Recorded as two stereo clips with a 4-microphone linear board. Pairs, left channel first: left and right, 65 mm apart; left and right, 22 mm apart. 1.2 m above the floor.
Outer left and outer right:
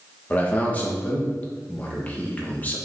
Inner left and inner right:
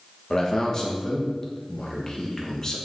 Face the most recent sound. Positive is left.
turn(degrees=25)  # may be behind; listen again after turning